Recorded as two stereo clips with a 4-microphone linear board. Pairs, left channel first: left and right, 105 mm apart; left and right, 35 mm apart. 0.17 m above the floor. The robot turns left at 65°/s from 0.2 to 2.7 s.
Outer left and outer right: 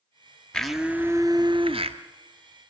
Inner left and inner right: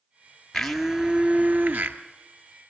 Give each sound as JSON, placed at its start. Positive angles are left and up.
{"t": 0.5, "sound": "a blender", "azimuth_deg": 10, "distance_m": 1.6}